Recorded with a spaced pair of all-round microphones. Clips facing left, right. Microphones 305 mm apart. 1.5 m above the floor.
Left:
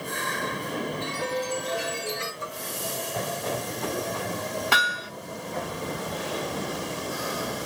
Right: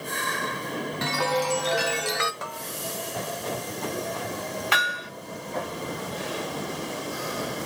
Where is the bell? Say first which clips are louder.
Left 1 dB; 80° right, 1.3 m.